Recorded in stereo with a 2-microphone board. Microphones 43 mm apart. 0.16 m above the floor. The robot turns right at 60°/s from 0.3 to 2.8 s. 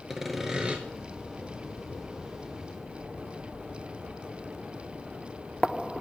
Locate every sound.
0.1 s sawing: 5° right (ahead or behind), 1.0 m; by 0.8 s 30° right (ahead or behind), 1.0 m